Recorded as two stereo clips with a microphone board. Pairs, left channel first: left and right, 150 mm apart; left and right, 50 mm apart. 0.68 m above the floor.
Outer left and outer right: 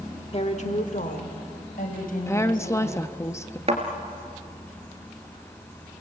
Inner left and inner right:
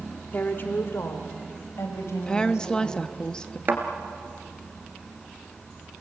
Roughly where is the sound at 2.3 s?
Centre.